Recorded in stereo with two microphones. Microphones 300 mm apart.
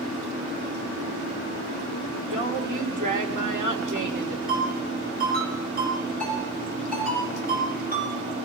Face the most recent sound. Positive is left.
turn(degrees=-30)  # may be behind; listen again after turning